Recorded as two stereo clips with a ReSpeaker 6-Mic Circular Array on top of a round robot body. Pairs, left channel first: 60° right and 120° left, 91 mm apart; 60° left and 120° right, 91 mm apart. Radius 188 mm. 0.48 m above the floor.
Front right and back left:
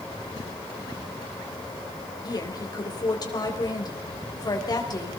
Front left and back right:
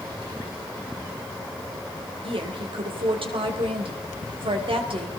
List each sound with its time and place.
2.2 s a woman speaking: 105° right, 4 m